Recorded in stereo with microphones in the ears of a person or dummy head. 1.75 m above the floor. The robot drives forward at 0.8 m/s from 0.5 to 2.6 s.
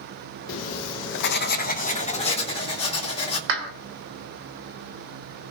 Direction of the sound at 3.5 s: 60° right (ahead or behind).